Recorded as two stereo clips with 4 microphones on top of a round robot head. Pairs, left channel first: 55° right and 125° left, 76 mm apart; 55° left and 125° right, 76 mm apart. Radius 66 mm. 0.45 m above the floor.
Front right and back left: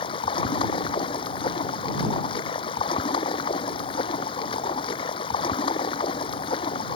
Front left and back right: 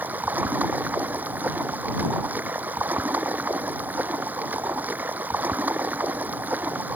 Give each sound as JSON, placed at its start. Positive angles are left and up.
{"t": 0.0, "sound": "running water", "azimuth_deg": -55}